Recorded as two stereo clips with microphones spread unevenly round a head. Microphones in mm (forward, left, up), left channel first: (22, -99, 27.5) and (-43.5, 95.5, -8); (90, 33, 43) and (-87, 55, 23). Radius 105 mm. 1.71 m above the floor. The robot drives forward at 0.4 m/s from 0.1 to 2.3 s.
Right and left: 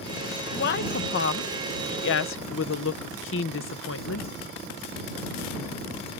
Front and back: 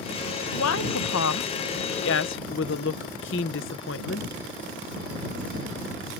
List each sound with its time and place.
0.5 s a woman speaking: 30° right; by 4.3 s 40° right